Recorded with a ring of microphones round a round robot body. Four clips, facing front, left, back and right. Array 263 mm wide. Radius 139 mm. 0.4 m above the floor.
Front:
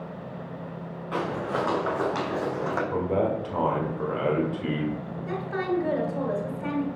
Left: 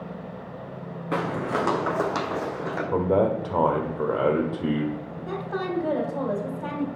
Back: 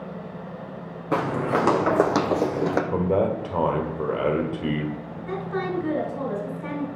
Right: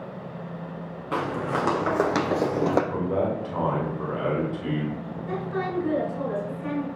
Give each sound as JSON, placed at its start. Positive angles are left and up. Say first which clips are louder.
{"t": 1.1, "sound": "footsteps", "louder": "even, back 5 dB", "azimuth_deg": 160, "distance_m": 2.0}
{"t": 2.9, "sound": "a man speaking", "louder": "left 4 dB, back 3 dB", "azimuth_deg": 120, "distance_m": 1.9}
{"t": 5.3, "sound": "a woman speaking", "louder": "even, back 1 dB", "azimuth_deg": 70, "distance_m": 2.5}